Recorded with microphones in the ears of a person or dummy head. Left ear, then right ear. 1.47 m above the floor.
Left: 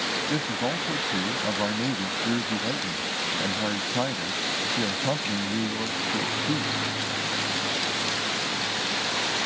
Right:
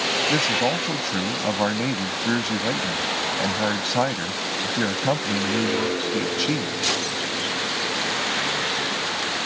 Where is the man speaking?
90° right.